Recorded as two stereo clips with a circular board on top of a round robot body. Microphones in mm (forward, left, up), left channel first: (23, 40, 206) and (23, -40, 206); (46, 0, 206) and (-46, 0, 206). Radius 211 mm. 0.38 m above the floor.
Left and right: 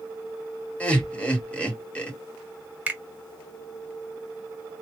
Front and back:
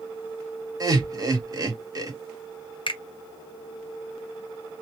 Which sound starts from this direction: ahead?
A finger snap, at 2.9 s.